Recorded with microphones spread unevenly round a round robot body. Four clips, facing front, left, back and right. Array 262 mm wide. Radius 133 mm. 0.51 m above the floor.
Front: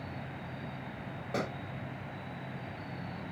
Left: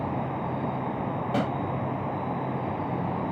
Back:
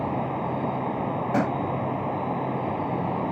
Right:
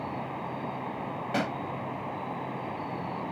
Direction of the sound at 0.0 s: 165° left.